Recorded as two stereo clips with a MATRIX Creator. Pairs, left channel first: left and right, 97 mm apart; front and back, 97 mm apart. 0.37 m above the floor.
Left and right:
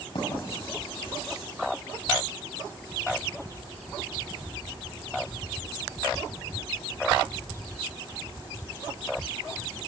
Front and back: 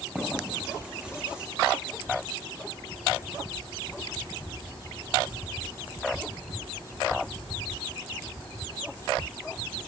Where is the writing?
105° left, 7 m.